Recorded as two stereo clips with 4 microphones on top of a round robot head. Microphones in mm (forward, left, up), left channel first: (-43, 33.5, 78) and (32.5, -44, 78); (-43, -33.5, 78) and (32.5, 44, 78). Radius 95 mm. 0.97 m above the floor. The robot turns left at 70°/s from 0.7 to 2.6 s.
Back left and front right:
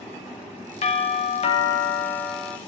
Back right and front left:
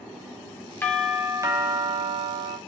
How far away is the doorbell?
About 2.5 m.